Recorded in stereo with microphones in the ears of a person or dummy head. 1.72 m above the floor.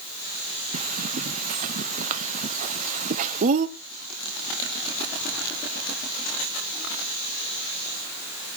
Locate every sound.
0.7 s a bird: 40° right (ahead or behind), 0.9 m